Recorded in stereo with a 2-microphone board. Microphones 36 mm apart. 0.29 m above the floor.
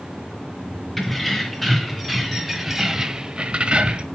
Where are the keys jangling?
5° left (ahead or behind), 3 m; by 4.0 s 25° right (ahead or behind), 1.0 m.